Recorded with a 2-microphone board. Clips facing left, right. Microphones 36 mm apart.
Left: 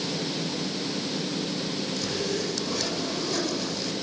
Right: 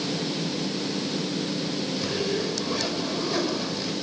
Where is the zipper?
15° right (ahead or behind), 6.5 m.